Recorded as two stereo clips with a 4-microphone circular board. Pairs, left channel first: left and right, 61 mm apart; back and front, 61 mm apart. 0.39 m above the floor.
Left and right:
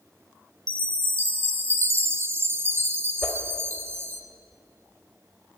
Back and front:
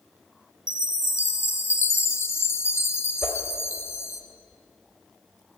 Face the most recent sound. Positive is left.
turn(degrees=135)